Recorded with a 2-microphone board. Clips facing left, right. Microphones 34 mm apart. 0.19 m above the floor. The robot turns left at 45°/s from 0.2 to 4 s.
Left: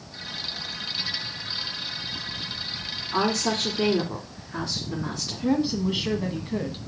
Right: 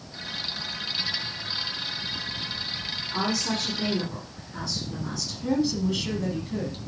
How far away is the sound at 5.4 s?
About 1.2 m.